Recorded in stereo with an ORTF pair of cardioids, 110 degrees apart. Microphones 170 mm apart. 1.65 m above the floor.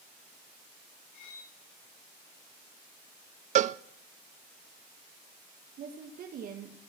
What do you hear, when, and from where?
1.1 s cutlery clinking: 65° left, 9 m
3.5 s a cowbell: 45° right, 0.5 m
5.8 s a woman speaking: 60° right, 1.8 m